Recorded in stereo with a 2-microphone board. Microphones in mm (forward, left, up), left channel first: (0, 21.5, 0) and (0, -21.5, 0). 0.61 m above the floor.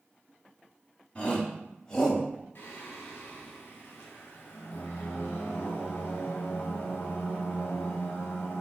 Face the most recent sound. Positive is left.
turn(degrees=60)  # may be behind; listen again after turning